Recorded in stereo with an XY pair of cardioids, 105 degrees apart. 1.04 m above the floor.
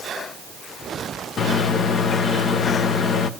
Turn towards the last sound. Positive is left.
turn(degrees=55)